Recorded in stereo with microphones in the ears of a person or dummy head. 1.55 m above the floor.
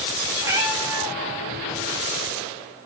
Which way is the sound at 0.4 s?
15° right (ahead or behind).